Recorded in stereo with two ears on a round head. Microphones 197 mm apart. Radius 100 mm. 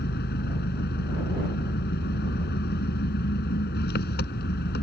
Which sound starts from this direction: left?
An engine running, at 0.0 s.